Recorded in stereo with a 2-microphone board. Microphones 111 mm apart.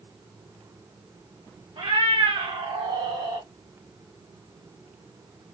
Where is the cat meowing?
55° right (ahead or behind), 1.1 m; by 3.5 s 40° right (ahead or behind), 1.1 m.